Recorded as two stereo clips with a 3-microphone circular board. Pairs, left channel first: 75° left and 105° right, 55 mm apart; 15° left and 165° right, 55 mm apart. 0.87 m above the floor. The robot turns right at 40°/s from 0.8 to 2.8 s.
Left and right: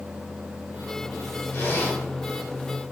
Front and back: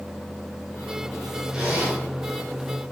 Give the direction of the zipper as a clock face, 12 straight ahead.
8 o'clock.